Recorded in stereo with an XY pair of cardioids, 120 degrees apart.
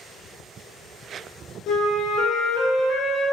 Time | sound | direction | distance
1.7 | a flute | 70° left | 0.6 m